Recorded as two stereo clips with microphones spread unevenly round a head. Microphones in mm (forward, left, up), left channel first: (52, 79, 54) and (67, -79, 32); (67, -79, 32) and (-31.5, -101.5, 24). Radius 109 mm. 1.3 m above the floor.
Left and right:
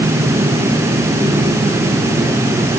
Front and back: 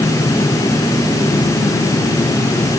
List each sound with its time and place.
Only background noise.